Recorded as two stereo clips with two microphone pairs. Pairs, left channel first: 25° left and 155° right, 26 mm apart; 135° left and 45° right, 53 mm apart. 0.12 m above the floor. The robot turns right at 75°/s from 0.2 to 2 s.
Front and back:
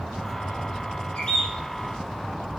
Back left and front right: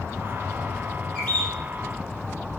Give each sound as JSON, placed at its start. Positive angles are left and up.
{"t": 1.1, "sound": "a bird", "azimuth_deg": 65, "distance_m": 3.5}